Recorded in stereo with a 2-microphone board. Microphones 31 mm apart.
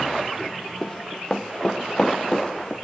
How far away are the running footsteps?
About 1.8 m.